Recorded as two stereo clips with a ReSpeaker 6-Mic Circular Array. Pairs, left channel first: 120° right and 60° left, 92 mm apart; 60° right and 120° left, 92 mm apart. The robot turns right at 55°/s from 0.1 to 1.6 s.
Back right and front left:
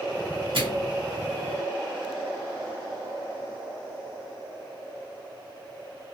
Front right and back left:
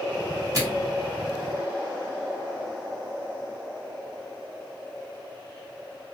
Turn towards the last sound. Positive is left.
turn(degrees=130)